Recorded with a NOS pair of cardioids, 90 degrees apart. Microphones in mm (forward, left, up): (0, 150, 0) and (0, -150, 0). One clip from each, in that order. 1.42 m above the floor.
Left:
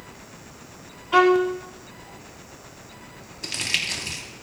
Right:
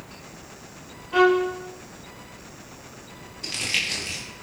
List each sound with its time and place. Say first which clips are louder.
1.1 s a violin: left 2 dB; 70° left, 2 m
3.4 s crumpling: even; 30° left, 3.5 m